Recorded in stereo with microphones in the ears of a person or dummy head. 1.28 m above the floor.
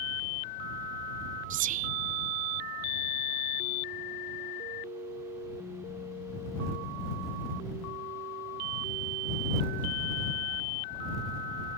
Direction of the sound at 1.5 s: 40° right (ahead or behind).